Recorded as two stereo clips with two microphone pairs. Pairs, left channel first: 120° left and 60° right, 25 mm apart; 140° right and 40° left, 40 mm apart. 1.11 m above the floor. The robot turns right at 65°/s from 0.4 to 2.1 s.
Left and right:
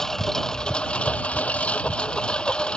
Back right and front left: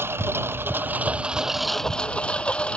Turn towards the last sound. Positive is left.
turn(degrees=160)